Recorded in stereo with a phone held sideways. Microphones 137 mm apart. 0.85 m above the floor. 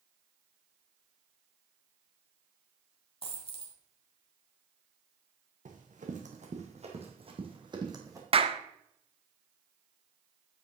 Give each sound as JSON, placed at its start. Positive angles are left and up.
{"t": 3.2, "sound": "a dropped coin", "side_deg": 40, "distance_m": 1.8}
{"t": 5.7, "sound": "running footsteps", "side_deg": -70, "distance_m": 2.5}
{"t": 8.3, "sound": "a clap", "side_deg": -45, "distance_m": 0.7}